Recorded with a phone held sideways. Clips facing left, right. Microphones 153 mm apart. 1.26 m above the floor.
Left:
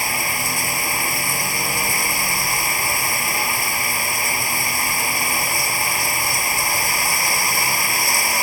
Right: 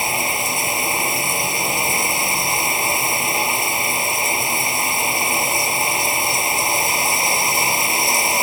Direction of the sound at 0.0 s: 20° right (ahead or behind).